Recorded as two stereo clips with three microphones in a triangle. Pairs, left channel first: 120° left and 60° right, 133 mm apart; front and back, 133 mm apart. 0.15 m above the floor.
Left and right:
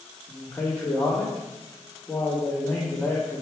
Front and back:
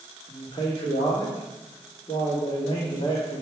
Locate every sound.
0.3 s a man speaking: 45° left, 3.5 m